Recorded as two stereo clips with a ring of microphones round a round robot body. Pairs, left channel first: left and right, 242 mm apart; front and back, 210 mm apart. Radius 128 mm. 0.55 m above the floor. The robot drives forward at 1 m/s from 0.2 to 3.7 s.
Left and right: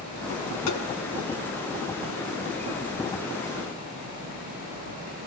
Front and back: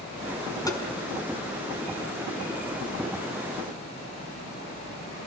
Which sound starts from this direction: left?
Tapping, at 0.7 s.